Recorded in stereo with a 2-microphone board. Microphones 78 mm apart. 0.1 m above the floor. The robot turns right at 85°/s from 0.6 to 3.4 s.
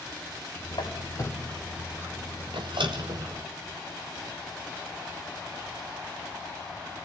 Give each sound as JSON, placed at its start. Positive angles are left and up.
{"t": 0.7, "sound": "a squeak", "side_deg": 80, "distance_m": 3.0}